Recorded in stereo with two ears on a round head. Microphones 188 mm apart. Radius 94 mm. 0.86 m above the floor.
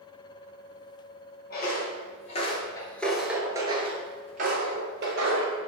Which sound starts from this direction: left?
Footsteps, at 1.5 s.